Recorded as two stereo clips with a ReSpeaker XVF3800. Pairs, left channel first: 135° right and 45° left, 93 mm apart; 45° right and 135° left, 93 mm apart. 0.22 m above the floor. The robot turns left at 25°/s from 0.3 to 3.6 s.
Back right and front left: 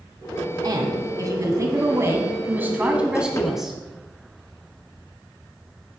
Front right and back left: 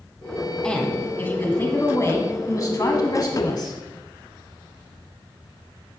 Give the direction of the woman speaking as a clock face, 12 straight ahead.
11 o'clock.